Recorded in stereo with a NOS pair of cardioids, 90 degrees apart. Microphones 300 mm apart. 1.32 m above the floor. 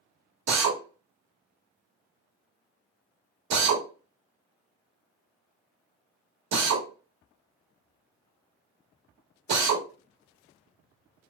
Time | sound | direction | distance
0.5 | a drill | 65° right | 1.0 m